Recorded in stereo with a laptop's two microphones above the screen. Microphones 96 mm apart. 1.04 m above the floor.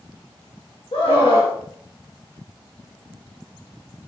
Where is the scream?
65° left (ahead or behind), 1.8 m.